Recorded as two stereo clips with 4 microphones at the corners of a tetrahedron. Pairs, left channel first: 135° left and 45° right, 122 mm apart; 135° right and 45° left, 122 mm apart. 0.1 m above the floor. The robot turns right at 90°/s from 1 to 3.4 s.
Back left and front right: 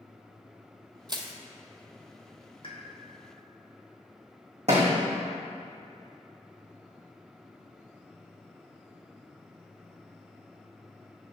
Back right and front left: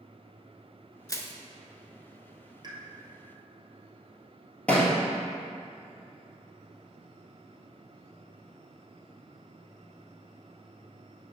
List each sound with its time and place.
1.1 s crushing: 85° right, 0.6 m; by 1.3 s 60° right, 0.6 m
2.6 s a pop: 95° left, 1.2 m; by 2.8 s 110° left, 1.2 m
4.7 s a thud: 55° right, 1.5 m